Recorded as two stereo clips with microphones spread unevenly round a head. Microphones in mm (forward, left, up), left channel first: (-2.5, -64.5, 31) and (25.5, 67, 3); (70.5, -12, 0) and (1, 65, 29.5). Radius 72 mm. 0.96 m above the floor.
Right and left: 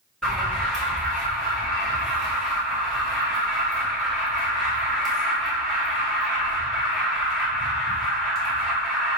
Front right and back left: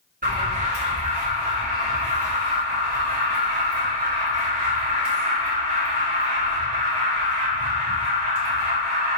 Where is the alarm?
165° left, 2 m.